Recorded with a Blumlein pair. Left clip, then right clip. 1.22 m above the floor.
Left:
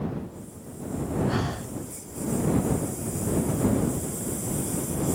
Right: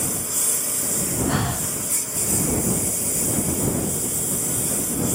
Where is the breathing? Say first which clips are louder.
Right 5 dB; 15° right.